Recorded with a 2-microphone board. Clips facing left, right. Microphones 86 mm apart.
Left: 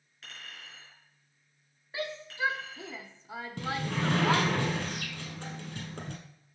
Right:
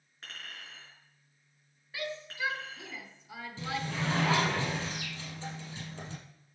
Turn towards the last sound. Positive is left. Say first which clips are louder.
# left 3 dB
turn(degrees=60)  # may be behind; listen again after turning